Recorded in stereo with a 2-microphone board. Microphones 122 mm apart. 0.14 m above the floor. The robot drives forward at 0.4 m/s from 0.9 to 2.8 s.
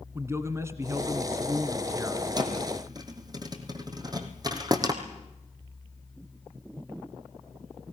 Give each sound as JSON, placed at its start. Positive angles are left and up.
{"t": 0.1, "sound": "a man speaking", "side_deg": -25, "distance_m": 1.8}
{"t": 2.4, "sound": "a thud", "side_deg": -35, "distance_m": 2.5}